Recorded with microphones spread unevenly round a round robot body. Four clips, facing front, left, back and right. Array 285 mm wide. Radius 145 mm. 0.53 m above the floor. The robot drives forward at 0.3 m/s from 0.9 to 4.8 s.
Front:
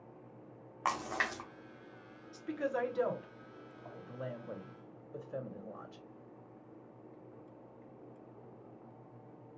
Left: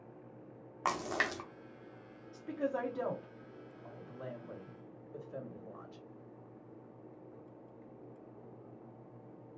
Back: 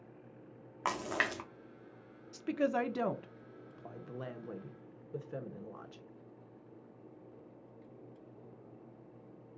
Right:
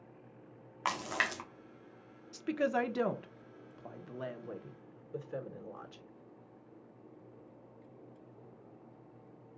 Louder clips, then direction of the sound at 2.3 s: Right 4 dB, back 4 dB; 125° right.